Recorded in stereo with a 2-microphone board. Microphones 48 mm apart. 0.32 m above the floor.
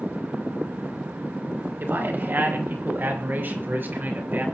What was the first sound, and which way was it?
A man speaking, 55° right (ahead or behind).